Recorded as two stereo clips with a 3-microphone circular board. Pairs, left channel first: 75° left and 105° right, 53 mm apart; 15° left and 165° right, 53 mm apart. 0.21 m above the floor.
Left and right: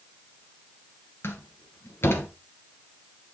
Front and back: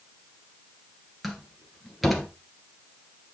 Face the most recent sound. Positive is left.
turn(degrees=105)